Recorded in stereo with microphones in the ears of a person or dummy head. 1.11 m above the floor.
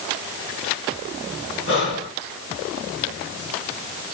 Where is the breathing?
65° left (ahead or behind), 2.5 m.